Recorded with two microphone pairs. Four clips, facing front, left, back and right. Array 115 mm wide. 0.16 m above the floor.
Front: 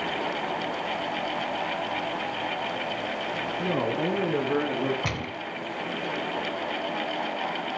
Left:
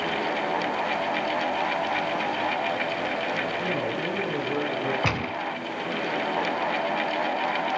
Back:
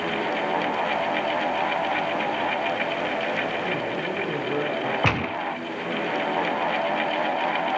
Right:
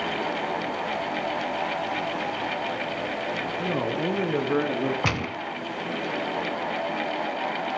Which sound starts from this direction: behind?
A gunshot, at 5.0 s.